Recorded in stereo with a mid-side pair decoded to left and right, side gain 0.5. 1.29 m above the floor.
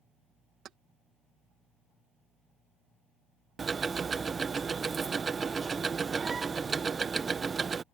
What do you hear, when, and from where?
0.7 s keys jangling: 60° right
3.6 s ticking: 30° right